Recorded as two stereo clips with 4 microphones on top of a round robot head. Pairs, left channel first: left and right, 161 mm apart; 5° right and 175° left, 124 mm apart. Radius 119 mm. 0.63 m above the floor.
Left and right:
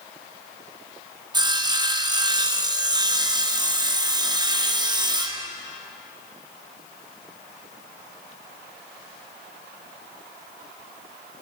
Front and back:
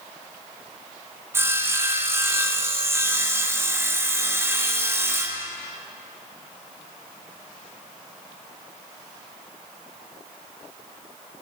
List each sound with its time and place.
1.3 s sawing: 130° right, 1.1 m